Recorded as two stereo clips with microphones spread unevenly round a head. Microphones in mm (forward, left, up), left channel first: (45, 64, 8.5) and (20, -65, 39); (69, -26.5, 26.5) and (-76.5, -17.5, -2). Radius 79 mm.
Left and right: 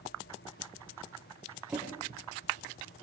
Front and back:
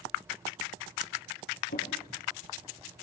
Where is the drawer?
20° right, 7.5 m.